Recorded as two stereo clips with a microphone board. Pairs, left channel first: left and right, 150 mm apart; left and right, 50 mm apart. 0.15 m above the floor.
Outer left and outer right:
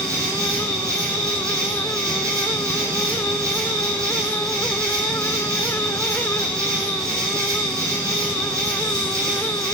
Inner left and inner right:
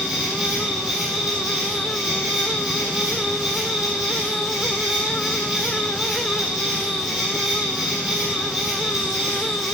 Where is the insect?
20° right (ahead or behind), 4.5 m.